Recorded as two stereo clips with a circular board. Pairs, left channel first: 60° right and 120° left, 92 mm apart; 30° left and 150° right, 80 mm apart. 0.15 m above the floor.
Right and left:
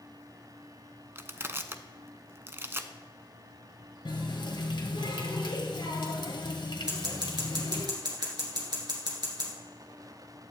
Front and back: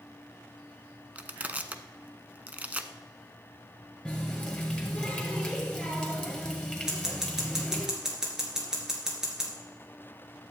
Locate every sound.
1.1 s crushing: 155° left, 0.5 m
4.0 s a running tap: 45° right, 1.9 m
6.9 s scissors: 130° left, 2 m